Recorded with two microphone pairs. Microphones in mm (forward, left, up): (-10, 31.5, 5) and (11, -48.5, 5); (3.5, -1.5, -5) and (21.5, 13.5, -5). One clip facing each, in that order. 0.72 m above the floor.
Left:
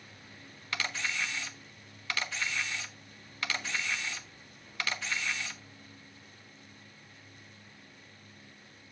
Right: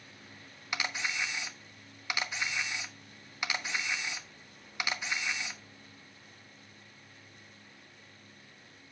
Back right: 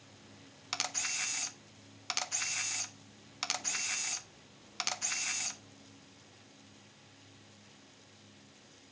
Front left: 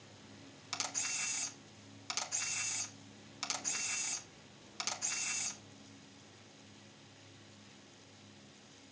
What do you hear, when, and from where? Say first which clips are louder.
0.7 s a camera shutter: even, back right 4 dB; 130° right, 1.1 m